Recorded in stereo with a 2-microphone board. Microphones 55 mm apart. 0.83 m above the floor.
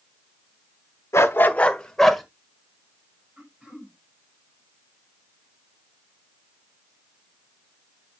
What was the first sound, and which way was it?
A dog barking, 60° left (ahead or behind).